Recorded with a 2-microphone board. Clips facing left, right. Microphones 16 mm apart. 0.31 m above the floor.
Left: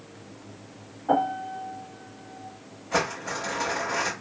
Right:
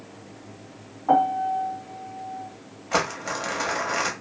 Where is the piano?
45° right (ahead or behind), 2 m.